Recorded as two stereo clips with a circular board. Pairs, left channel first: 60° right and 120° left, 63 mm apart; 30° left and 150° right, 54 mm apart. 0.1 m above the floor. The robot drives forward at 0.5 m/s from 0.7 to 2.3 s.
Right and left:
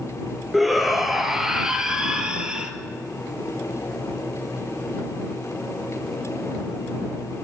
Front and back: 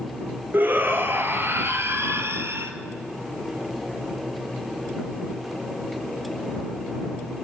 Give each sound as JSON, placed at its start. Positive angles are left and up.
{"t": 0.5, "sound": "a shout", "azimuth_deg": -150, "distance_m": 1.4}